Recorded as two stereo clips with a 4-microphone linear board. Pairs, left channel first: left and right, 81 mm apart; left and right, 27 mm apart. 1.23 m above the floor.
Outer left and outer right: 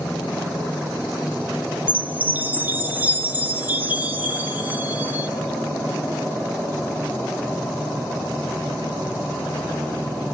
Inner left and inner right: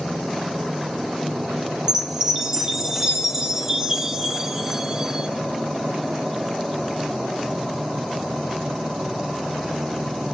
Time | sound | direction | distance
1.9 | a chime | 20° right (ahead or behind) | 1.2 m